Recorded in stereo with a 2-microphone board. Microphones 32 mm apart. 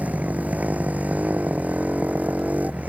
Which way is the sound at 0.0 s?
55° right (ahead or behind).